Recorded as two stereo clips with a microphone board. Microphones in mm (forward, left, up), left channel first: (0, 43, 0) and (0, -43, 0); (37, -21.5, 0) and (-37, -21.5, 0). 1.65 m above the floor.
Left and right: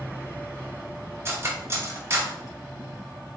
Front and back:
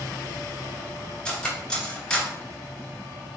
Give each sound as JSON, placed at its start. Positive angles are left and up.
{"t": 1.2, "sound": "cutlery clinking", "azimuth_deg": -65, "distance_m": 1.1}